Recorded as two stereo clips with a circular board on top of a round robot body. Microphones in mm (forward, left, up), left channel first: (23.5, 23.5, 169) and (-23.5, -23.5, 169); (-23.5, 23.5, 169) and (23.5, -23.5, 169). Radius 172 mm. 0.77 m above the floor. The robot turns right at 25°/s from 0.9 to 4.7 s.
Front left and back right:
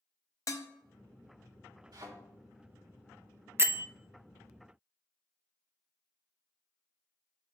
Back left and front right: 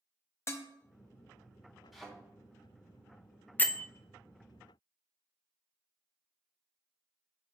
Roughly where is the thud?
Behind right.